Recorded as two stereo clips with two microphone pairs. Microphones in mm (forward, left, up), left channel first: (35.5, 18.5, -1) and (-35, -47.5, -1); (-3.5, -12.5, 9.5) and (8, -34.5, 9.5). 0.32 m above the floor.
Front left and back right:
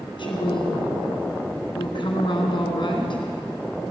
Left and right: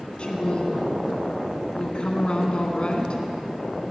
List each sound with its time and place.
0.2 s a woman speaking: 70° left, 2.5 m